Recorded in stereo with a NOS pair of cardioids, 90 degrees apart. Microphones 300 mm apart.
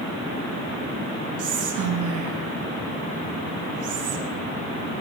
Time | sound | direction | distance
1.4 | whispering | 70° right | 3 m